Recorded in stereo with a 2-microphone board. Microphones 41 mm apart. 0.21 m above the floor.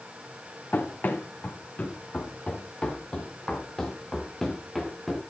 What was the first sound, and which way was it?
Running footsteps, 55° left (ahead or behind).